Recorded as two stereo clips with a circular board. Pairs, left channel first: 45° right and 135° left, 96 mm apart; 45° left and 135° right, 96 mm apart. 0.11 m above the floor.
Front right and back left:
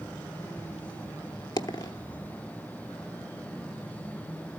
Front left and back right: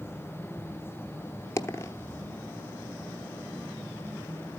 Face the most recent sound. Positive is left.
turn(degrees=-10)